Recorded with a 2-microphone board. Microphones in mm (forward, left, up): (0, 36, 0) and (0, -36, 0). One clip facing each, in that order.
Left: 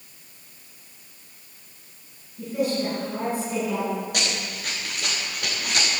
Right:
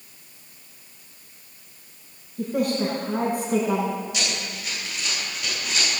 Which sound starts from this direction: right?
A woman speaking, at 2.4 s.